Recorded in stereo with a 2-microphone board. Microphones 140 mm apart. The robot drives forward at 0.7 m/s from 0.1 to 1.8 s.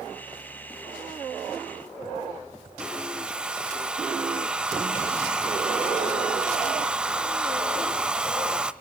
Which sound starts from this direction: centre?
A hair dryer, at 2.8 s.